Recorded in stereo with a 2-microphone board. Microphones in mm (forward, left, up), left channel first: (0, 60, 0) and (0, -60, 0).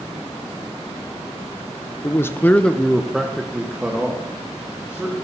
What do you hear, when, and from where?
2.0 s a man speaking: 20° left (ahead or behind), 0.6 m; by 5.2 s 15° right (ahead or behind), 2 m